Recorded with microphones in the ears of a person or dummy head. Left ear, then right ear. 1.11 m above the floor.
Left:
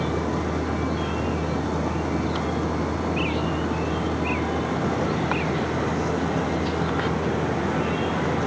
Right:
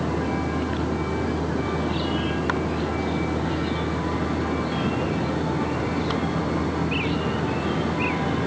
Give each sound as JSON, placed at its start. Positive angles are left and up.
{"t": 0.0, "sound": "a vehicle", "side_deg": 50}